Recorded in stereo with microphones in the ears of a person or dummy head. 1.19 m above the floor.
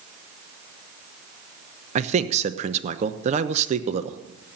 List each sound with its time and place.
1.9 s a man speaking: 35° right (ahead or behind), 0.9 m